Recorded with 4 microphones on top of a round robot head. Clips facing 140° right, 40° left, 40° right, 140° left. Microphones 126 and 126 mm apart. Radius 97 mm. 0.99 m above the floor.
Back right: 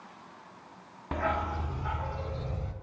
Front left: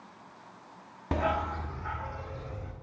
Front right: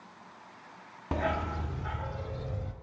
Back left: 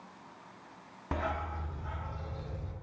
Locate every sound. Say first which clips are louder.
1.1 s a dog barking: front left 1 dB, front right 4 dB; 15° left, 0.5 m; by 2.7 s 75° right, 2.5 m